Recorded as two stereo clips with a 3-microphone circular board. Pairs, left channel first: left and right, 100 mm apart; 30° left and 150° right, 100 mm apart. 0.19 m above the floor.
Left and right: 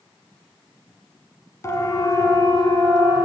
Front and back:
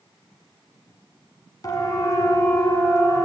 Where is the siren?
50° left, 2.5 m; by 3.2 s 80° left, 3 m.